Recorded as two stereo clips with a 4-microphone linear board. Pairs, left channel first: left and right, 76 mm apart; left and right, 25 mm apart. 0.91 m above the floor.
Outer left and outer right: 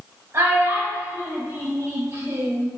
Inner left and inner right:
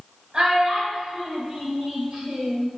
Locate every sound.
0.3 s a child speaking: 35° right (ahead or behind), 0.6 m